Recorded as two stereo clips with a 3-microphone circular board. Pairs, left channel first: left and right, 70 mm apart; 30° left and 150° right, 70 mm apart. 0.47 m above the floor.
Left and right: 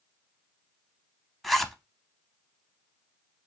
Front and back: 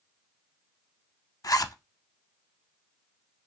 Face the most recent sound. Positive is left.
turn(degrees=0)